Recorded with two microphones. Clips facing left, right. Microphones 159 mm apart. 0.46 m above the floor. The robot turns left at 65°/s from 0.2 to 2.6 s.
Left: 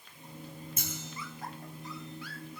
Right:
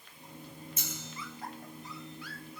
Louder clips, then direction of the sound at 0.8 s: Left 2 dB; 55° left (ahead or behind).